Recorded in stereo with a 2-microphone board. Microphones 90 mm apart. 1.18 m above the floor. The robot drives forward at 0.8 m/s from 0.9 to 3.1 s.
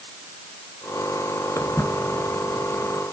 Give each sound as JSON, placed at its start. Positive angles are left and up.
{"t": 1.6, "sound": "footsteps", "side_deg": 30, "distance_m": 1.3}